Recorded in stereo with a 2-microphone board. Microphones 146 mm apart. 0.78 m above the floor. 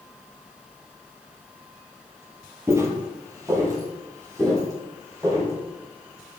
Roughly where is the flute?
No flute in this recording.